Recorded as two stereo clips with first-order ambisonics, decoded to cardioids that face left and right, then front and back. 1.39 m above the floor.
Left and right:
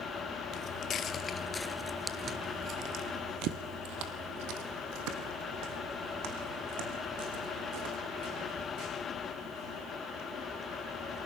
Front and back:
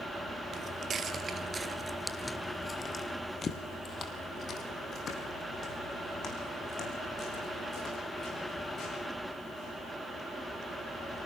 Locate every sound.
0.5 s footsteps: 125° left, 2 m; by 9.8 s 60° right, 9.5 m